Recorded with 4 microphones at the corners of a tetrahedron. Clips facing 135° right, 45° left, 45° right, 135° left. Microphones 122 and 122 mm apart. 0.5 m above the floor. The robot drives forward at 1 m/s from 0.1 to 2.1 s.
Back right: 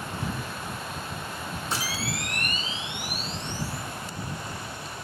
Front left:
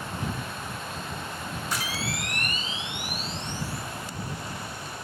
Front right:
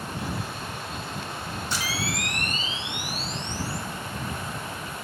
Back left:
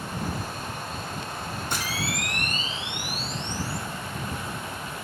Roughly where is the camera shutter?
Behind.